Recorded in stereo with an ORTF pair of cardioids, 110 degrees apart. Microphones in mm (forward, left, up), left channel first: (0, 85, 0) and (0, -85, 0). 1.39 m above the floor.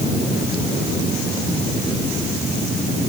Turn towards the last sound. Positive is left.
No sound to turn to.